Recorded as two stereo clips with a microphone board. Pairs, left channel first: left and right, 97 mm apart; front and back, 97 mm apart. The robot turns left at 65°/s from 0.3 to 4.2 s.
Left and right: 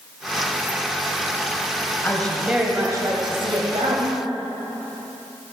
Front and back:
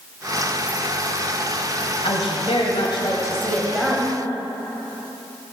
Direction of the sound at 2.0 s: 20° left.